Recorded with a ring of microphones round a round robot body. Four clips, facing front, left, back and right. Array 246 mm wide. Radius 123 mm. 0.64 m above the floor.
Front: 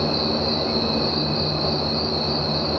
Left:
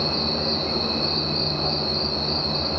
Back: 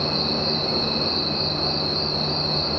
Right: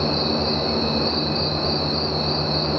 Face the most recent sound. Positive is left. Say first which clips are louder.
# right 4 dB, front 3 dB
turn(degrees=-40)